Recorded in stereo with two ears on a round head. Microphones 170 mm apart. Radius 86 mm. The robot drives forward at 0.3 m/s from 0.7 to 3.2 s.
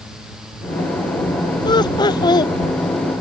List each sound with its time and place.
1.6 s laughter: 25° left (ahead or behind)